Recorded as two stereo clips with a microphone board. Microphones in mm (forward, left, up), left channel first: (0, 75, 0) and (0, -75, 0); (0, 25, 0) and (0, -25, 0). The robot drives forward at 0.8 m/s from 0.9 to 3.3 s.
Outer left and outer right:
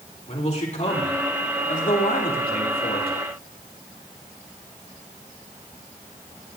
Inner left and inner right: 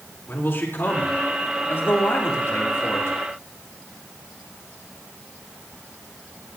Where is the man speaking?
50° left (ahead or behind), 3.5 m; by 3.2 s 80° left, 2.5 m.